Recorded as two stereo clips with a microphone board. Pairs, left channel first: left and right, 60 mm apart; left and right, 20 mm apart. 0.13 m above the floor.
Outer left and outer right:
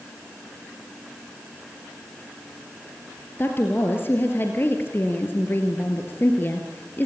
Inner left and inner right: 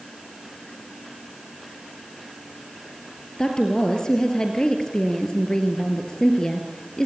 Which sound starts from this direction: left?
A woman speaking, at 3.4 s.